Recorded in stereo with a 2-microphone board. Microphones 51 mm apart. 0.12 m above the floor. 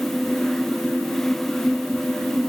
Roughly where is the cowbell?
No cowbell in this recording.